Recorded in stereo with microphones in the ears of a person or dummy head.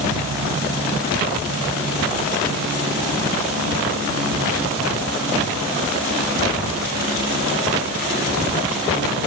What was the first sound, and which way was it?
Only background noise.